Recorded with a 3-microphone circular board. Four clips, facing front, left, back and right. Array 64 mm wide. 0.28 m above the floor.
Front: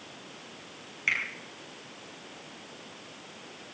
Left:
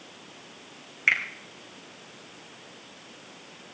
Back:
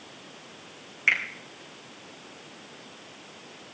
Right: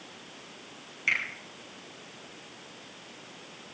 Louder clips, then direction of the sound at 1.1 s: Left 5 dB, back 5 dB; 120° left.